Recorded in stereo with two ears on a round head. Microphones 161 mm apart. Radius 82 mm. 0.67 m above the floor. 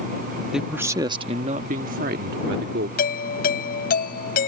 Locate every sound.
0.5 s a man speaking: 5° right (ahead or behind); by 2.9 s 65° right (ahead or behind)
3.0 s a doorbell: 50° left (ahead or behind)